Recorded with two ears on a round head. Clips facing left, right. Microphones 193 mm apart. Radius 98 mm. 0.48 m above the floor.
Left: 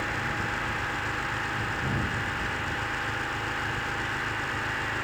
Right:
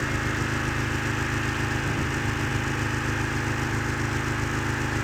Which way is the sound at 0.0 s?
40° right (ahead or behind).